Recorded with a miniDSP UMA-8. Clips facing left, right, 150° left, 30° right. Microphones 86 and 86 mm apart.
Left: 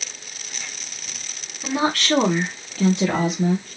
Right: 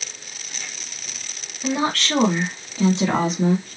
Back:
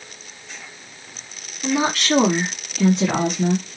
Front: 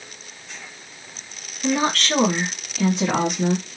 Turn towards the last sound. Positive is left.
turn(degrees=-105)